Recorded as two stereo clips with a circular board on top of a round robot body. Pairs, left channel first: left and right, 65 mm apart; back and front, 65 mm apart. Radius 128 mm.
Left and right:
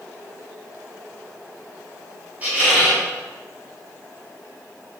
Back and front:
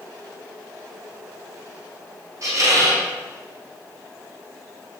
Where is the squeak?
25° right, 1.7 m.